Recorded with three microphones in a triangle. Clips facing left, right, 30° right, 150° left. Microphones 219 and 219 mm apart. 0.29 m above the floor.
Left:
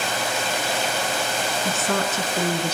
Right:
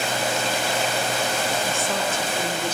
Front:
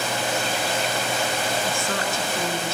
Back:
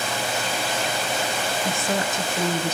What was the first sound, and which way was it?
A woman speaking, 80° left.